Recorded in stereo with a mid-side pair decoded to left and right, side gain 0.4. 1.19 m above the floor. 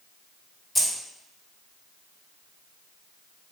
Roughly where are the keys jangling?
Ahead.